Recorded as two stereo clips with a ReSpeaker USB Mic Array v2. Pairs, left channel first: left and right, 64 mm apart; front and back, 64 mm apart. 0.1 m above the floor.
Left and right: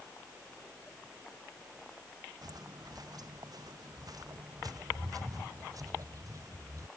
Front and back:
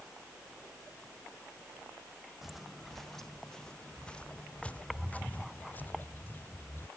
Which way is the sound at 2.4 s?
90° right.